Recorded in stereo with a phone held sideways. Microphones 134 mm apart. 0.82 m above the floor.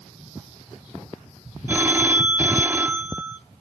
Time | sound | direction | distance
1.7 | a phone ringing | 15° right (ahead or behind) | 0.8 m